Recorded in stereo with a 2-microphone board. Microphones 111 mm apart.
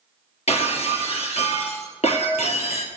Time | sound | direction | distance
0.5 | breaking glass | 70° left (ahead or behind) | 2.5 m